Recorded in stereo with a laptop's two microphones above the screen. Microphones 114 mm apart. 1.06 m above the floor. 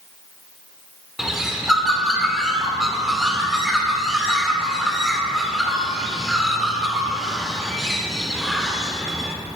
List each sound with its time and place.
1.2 s a bird: centre (ahead or behind), 2 m